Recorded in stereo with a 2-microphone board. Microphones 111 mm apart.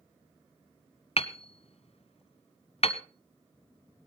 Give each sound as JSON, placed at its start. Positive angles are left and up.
{"t": 1.2, "sound": "hammering", "side_deg": 60, "distance_m": 1.2}